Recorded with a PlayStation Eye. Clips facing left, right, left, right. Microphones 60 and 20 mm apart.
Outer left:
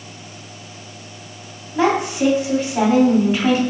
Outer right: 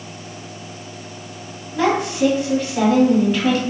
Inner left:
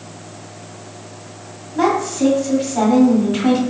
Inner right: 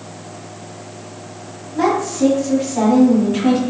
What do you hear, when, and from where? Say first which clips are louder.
1.8 s a woman speaking: outer left 1 dB, even; 20° left (ahead or behind), 1.5 m